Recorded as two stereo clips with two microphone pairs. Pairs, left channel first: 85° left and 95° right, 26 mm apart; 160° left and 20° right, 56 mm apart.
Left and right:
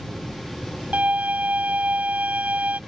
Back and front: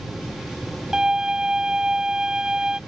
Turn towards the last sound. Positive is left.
turn(degrees=-95)